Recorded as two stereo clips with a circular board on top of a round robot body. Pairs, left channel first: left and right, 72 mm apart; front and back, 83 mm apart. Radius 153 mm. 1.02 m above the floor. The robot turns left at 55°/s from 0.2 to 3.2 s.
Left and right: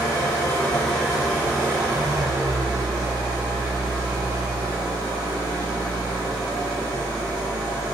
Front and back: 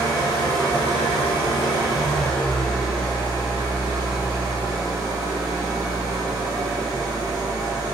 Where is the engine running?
50° left, 1.0 m; by 7.9 s 115° right, 1.0 m.